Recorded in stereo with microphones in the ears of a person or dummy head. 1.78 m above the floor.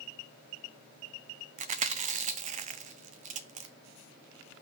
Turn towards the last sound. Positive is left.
turn(degrees=-40)  # may be behind; listen again after turning